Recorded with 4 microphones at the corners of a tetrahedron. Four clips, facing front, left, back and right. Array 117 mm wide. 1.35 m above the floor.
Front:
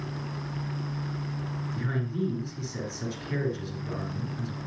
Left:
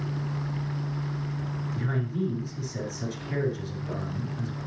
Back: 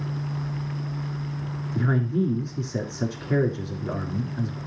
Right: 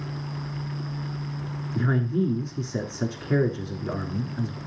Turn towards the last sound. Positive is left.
turn(degrees=-135)